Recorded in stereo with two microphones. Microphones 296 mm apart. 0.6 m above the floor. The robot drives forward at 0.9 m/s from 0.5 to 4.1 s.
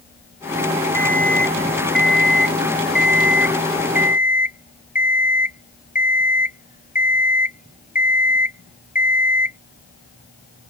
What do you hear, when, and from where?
0.9 s an alarm clock: 40° left (ahead or behind); by 9.6 s 25° left (ahead or behind)